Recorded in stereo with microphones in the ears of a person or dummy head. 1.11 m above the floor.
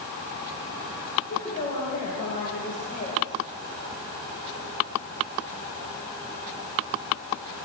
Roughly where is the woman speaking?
Left.